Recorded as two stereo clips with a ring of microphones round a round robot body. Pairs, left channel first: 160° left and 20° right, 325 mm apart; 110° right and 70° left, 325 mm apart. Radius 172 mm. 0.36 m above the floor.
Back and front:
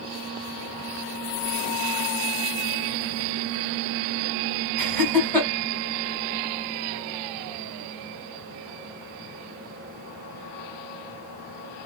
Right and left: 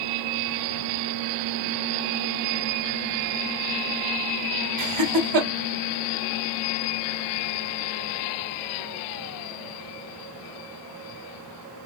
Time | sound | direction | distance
4.8 | laughter | 75° left | 2.5 m